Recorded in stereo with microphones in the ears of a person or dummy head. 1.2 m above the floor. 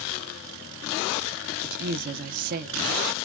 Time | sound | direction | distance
1.6 | a woman speaking | 55° right (ahead or behind) | 0.6 m